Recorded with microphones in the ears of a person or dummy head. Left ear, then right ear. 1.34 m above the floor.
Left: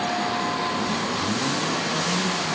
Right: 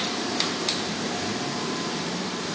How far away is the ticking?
I don't hear ticking.